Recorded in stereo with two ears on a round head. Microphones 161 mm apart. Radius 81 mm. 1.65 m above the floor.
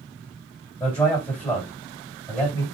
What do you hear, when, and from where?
0.8 s a man speaking: 15° left (ahead or behind), 3 m